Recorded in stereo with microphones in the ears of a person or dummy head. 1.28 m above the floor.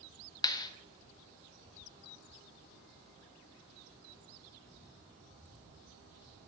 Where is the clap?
20° left (ahead or behind), 0.6 m.